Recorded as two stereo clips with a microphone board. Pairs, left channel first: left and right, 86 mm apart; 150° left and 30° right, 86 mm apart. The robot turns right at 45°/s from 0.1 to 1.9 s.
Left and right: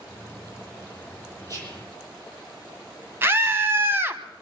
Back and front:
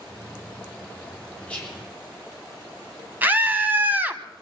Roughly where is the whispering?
Behind right.